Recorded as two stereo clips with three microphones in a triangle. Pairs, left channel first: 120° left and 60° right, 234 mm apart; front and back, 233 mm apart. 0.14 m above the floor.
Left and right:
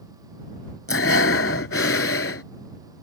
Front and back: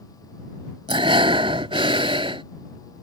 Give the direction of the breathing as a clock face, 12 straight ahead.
8 o'clock.